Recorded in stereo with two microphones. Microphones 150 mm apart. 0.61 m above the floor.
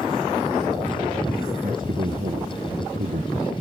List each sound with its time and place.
1.6 s a man speaking: 70° right (ahead or behind)